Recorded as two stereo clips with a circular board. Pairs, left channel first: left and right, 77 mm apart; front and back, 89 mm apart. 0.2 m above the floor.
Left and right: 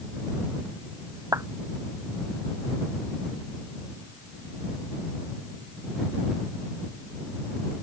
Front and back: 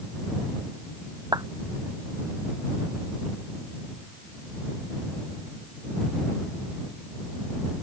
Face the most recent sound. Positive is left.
turn(degrees=-135)